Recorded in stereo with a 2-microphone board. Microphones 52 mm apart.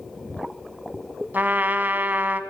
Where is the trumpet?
35° right (ahead or behind), 0.9 m.